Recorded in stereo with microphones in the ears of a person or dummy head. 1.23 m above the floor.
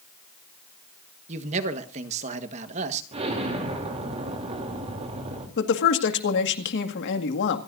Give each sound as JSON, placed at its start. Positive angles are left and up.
{"t": 1.3, "sound": "a man speaking", "side_deg": -40, "distance_m": 1.5}
{"t": 3.1, "sound": "an explosion", "side_deg": -35, "distance_m": 3.0}
{"t": 5.6, "sound": "a woman speaking", "side_deg": 55, "distance_m": 2.0}